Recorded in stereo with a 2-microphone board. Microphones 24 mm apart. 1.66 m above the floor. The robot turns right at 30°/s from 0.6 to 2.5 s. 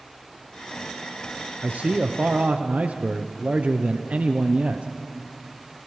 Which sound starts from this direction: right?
A man speaking, at 1.6 s.